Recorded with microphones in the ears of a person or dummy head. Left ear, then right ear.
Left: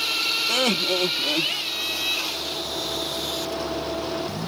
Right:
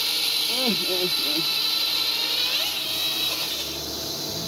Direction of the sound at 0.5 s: 55° left (ahead or behind).